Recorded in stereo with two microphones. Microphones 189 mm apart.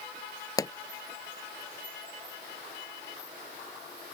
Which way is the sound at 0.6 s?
20° left (ahead or behind).